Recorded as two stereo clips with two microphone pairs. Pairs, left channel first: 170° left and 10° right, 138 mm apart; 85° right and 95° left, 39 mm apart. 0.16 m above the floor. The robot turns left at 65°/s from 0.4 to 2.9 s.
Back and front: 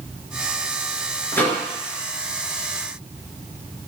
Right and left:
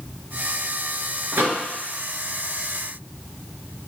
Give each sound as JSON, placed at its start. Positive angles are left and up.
{"t": 1.3, "sound": "a microwave", "azimuth_deg": 100, "distance_m": 1.5}